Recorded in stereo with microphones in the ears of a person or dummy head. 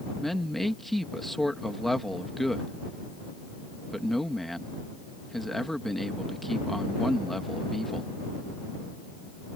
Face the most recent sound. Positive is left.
turn(degrees=5)  # may be behind; listen again after turning